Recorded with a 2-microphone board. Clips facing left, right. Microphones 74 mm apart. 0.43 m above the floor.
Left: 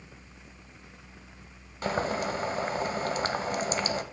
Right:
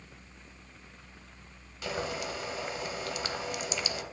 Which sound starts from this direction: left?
Boiling, at 1.8 s.